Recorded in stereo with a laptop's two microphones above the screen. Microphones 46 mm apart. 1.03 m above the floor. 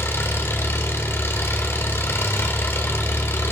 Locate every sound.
0.0 s an engine running: 65° left (ahead or behind), 2 m